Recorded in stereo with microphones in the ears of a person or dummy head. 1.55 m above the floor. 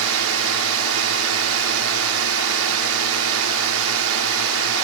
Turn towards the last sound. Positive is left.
turn(degrees=-75)  # may be behind; listen again after turning